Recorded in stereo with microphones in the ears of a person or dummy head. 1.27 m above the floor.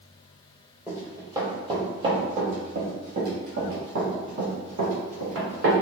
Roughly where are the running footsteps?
Centre.